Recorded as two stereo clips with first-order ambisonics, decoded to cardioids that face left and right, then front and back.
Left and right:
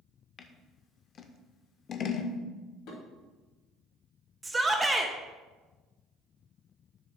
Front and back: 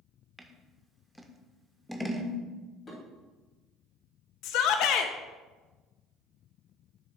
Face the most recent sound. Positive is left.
turn(degrees=-10)